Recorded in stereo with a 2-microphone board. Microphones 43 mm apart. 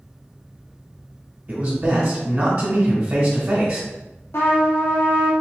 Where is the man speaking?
45° right (ahead or behind), 1.3 m.